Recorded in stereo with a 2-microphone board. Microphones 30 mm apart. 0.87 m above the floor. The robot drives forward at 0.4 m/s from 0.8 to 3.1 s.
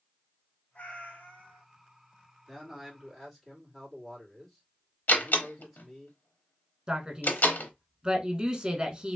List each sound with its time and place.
0.8 s a cat meowing: 65° left (ahead or behind), 1.8 m; by 1.6 s 75° left (ahead or behind), 1.7 m
2.5 s a man speaking: 5° right (ahead or behind), 1.9 m; by 6.1 s centre (ahead or behind), 2 m
5.1 s a door slam: 80° left, 0.9 m
6.9 s a man speaking: 35° right (ahead or behind), 1.2 m